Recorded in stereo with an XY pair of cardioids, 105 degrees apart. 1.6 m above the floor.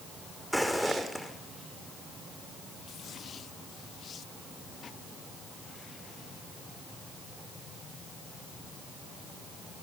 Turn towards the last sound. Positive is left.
turn(degrees=0)